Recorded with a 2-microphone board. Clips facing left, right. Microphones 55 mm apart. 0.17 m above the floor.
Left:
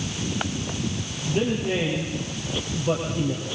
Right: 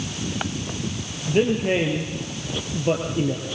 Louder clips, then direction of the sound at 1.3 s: Right 4 dB; 45° right (ahead or behind).